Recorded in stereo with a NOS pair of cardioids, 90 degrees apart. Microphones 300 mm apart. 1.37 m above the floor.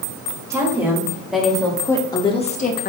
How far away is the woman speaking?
About 2.5 m.